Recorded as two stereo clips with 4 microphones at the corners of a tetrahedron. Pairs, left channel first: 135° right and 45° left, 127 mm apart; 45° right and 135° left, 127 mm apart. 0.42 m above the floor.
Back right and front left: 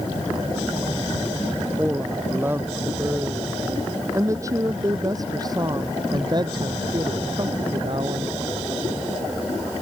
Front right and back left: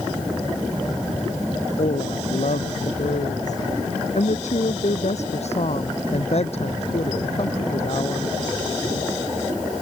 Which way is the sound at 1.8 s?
30° right.